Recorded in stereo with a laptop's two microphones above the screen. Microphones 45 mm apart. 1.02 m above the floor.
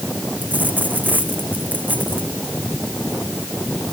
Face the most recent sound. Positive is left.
turn(degrees=-40)  # may be behind; listen again after turning